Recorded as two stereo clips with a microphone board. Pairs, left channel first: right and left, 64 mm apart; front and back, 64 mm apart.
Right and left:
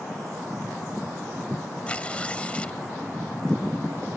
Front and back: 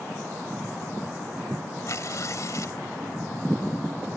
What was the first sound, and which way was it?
Tearing paper, 20° right.